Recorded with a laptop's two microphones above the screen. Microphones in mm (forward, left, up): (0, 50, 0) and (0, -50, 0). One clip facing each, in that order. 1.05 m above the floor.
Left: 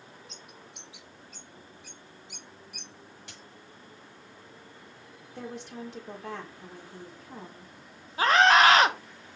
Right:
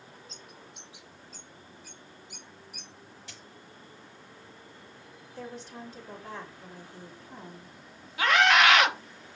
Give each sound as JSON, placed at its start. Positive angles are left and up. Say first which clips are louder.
{"t": 0.3, "sound": "a bird", "louder": "even", "side_deg": 75, "distance_m": 2.5}
{"t": 3.3, "sound": "a dropped coin", "louder": "even", "side_deg": 65, "distance_m": 5.0}
{"t": 5.3, "sound": "a woman speaking", "louder": "left 2 dB", "side_deg": 70, "distance_m": 3.5}
{"t": 8.2, "sound": "a scream", "louder": "left 3 dB", "side_deg": 35, "distance_m": 1.0}